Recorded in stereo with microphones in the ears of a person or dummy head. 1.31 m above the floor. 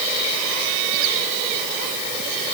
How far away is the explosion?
I don't hear an explosion.